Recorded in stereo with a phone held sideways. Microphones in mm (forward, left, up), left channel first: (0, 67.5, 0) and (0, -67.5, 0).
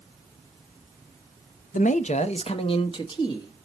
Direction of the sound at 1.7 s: 70° left (ahead or behind).